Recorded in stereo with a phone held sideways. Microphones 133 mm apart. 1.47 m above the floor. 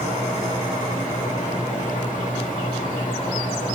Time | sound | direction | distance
0.0 | a fan | 80° left | 3 m